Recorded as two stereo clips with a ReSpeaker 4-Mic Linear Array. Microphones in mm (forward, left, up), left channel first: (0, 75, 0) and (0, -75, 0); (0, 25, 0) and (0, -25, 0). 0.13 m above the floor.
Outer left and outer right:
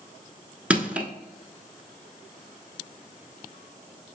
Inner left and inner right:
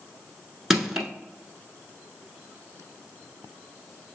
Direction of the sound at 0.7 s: 10° right (ahead or behind).